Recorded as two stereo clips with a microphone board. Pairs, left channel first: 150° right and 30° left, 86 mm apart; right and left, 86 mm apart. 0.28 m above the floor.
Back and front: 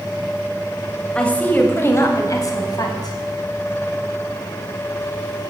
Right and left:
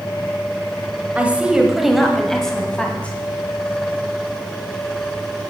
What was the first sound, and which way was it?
A woman speaking, 140° left.